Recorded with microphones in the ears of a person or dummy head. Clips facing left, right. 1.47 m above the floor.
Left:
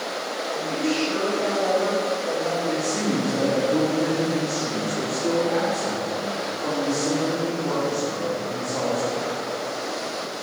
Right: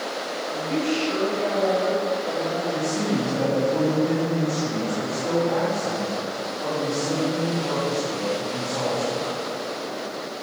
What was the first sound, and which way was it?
A woman speaking, 25° right (ahead or behind).